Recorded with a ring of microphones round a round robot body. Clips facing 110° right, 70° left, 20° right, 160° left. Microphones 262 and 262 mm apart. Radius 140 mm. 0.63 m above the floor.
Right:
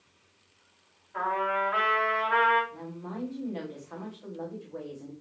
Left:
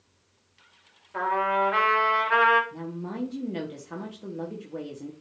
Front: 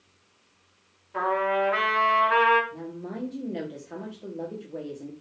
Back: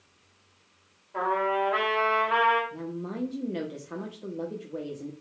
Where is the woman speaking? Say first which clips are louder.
Left 4 dB, back 1 dB; 80° left, 1.5 m.